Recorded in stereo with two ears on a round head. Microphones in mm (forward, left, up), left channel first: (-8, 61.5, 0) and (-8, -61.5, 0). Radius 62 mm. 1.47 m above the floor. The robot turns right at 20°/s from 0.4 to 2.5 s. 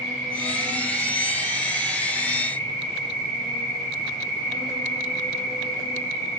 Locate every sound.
0.0 s an insect: 175° right, 2 m; by 6.4 s 130° right, 2 m